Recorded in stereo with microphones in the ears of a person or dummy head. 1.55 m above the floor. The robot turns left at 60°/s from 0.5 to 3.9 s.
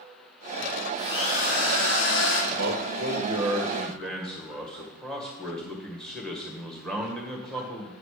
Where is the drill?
170° left, 3 m; by 2.4 s 85° left, 3 m.